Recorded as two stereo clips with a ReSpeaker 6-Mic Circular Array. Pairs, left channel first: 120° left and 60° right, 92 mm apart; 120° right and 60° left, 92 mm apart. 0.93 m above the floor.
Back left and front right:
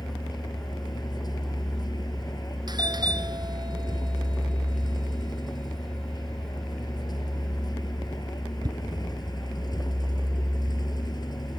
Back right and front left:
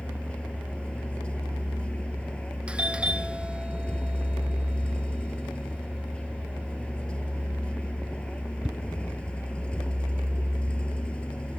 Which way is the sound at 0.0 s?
160° left.